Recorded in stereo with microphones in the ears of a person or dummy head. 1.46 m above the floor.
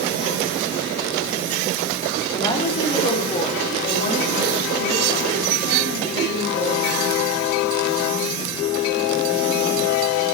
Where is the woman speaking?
20° left (ahead or behind), 3 m; by 7.3 s 45° left (ahead or behind), 10 m.